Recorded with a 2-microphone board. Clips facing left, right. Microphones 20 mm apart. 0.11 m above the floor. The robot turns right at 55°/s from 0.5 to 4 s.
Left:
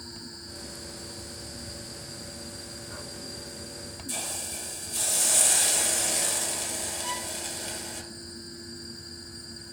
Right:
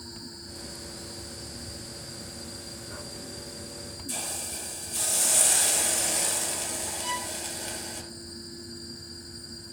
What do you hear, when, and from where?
4.1 s a hiss: 5° right (ahead or behind), 1.9 m
7.0 s a violin: 5° right (ahead or behind), 0.7 m